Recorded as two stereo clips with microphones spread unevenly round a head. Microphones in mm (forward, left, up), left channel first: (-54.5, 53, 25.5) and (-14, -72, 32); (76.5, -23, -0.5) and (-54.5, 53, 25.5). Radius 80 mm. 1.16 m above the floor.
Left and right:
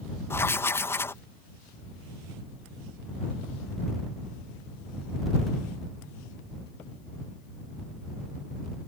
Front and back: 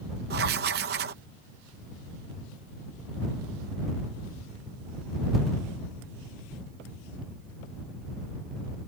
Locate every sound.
0.3 s writing: straight behind